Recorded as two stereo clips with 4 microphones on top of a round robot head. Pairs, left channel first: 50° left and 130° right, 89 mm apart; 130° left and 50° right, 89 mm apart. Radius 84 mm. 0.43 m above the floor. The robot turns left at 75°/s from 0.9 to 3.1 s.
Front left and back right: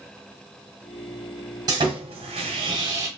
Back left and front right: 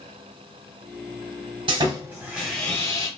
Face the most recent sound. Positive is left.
turn(degrees=175)